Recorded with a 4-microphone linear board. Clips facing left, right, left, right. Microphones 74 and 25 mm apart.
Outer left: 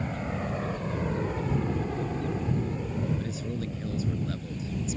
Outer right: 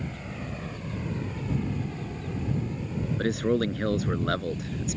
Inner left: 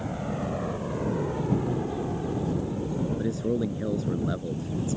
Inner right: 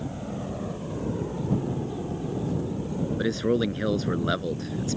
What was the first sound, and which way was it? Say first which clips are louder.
A helicopter: outer left 5 dB, inner left 2 dB; 30° left (ahead or behind).